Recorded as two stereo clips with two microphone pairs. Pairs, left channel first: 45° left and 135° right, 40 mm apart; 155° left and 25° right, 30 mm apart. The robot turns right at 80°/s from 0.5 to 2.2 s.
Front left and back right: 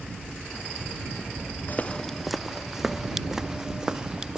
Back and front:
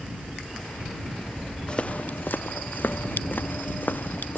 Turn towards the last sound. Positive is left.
turn(degrees=155)